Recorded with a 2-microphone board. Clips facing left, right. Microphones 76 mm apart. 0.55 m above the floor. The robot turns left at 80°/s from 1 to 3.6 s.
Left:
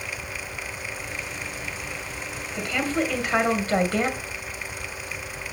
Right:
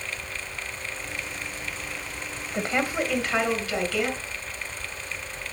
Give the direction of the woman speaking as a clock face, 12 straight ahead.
4 o'clock.